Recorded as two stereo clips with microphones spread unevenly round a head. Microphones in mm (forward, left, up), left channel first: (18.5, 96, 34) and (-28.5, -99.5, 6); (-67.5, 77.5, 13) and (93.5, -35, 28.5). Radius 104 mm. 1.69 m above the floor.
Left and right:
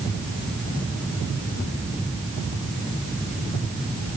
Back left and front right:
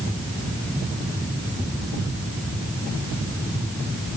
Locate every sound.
Only background noise.